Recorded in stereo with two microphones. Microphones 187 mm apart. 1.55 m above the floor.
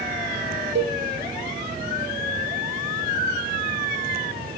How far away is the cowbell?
About 0.8 m.